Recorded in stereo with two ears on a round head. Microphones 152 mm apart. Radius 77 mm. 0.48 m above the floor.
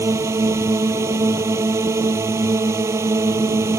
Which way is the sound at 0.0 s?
15° right (ahead or behind).